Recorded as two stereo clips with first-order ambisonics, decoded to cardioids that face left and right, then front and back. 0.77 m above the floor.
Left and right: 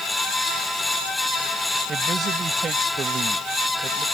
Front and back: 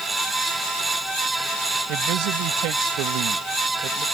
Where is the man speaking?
155° right.